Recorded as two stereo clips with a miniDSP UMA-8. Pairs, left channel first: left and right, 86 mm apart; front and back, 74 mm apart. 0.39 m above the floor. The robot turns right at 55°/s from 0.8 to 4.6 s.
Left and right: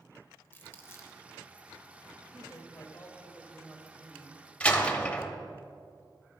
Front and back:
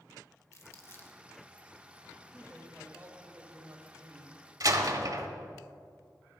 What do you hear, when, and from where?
0.5 s crumpling: 35° left, 1.1 m; by 1.2 s 55° left, 1.1 m
2.3 s a man speaking: 95° left, 1.5 m; by 4.4 s 150° right, 1.5 m
4.6 s a door slam: 165° left, 0.9 m